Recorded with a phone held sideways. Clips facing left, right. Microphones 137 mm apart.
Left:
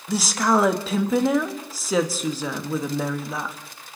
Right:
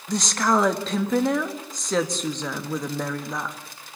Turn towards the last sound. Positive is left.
turn(degrees=5)  # may be behind; listen again after turning